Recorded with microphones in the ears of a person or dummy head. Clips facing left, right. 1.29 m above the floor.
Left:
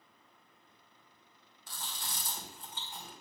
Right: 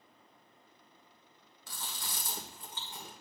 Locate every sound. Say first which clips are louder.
1.7 s chewing: even; 55° right (ahead or behind), 1.4 m